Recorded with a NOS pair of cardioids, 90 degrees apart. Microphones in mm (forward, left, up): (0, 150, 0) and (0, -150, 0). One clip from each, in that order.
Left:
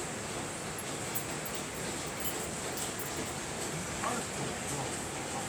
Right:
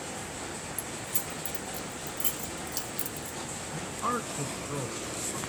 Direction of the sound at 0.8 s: 60° right.